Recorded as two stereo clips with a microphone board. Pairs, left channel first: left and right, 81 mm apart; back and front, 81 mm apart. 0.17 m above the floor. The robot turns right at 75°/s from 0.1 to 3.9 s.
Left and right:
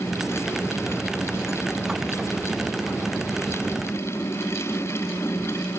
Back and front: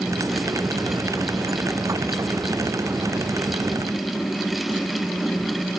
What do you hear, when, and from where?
Only background noise.